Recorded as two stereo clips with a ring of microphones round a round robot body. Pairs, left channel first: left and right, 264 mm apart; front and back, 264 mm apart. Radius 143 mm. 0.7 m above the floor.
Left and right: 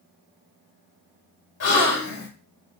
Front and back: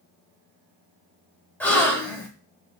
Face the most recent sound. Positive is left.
turn(degrees=85)